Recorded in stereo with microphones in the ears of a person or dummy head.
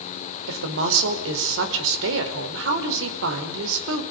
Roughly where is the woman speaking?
Right.